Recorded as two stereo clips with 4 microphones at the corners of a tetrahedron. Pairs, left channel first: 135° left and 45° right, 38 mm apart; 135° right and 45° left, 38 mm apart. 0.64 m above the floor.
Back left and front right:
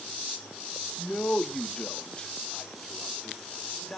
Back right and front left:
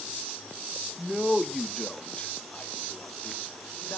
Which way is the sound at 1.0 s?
110° left.